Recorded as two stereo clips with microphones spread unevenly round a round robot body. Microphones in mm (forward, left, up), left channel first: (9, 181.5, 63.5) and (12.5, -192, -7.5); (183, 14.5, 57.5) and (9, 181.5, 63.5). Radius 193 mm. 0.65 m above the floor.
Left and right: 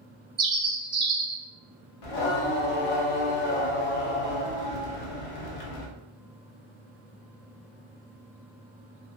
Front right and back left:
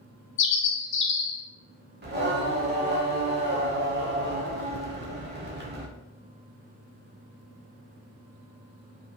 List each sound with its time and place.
0.4 s a bird: 25° right, 0.7 m
2.0 s singing: 90° left, 0.8 m